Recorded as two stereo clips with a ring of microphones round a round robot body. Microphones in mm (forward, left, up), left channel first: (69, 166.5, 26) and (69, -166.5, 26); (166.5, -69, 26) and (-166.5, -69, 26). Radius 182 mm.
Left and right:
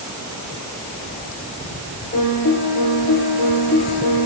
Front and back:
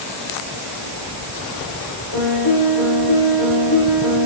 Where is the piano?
25° left, 6.5 m.